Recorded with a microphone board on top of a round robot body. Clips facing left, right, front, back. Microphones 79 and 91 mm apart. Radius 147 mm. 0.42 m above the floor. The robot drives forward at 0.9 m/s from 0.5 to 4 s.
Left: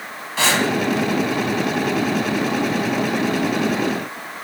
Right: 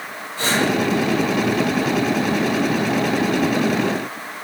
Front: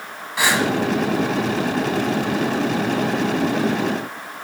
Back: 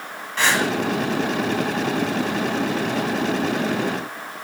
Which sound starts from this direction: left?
Breathing, at 0.4 s.